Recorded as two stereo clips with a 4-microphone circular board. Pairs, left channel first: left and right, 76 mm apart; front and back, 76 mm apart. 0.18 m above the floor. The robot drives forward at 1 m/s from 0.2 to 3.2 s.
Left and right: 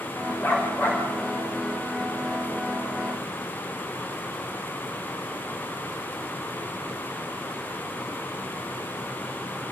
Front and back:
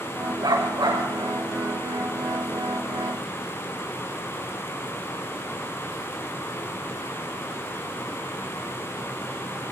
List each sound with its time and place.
0.4 s a dog barking: 150° left, 7 m; by 1.0 s 155° left, 7.5 m